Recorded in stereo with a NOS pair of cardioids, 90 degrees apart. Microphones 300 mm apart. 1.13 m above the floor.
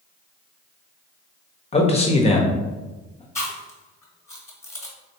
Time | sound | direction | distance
1.7 | a man speaking | 20° left | 1.0 m
3.4 | chewing | 10° left | 1.6 m